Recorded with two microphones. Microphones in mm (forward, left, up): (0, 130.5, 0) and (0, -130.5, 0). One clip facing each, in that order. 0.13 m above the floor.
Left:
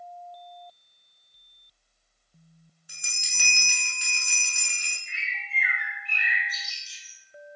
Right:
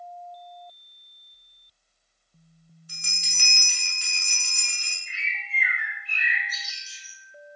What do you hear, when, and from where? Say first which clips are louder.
2.9 s a bell: right 4 dB; 15° left (ahead or behind), 0.8 m
5.1 s a bird: right 3 dB; 5° right (ahead or behind), 1.2 m